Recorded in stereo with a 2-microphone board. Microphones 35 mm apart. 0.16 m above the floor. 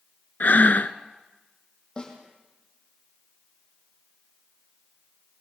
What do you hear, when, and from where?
0.4 s breathing: 55° left (ahead or behind), 0.9 m
2.0 s a snare drum: 25° left (ahead or behind), 6 m